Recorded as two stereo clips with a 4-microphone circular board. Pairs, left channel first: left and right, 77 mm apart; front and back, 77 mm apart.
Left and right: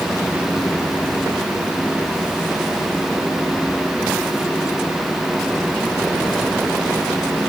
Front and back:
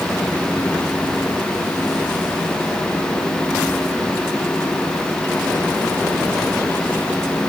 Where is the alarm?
No alarm in this recording.